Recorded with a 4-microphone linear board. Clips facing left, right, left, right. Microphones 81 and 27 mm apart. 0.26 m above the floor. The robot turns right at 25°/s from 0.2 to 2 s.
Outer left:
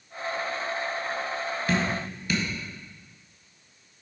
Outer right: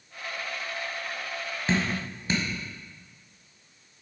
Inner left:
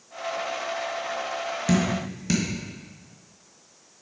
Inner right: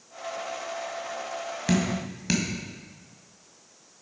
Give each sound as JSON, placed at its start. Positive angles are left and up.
{"t": 1.7, "sound": "dripping", "side_deg": -25, "distance_m": 1.5}